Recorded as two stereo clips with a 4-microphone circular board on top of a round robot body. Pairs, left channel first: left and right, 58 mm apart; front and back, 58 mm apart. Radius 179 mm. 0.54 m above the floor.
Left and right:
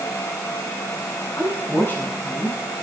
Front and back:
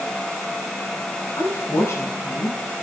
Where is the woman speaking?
40° left, 8 m.